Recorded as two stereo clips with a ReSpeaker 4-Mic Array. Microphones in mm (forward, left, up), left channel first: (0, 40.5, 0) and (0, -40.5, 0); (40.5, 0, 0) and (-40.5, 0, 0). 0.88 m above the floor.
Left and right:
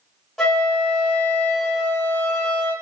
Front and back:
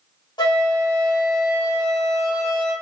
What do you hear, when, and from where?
0.4 s a flute: 5° left, 1.1 m